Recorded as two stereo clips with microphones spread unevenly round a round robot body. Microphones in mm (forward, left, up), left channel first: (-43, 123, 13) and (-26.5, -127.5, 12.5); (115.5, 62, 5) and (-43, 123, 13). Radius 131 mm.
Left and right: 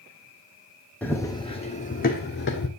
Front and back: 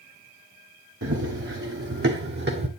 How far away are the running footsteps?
About 1.1 m.